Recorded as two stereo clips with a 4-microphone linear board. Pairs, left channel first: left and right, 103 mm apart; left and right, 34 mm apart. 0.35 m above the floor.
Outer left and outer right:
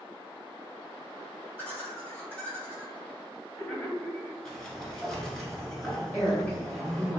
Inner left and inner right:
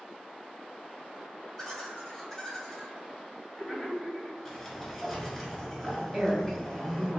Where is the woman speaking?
15° left (ahead or behind), 1.7 m.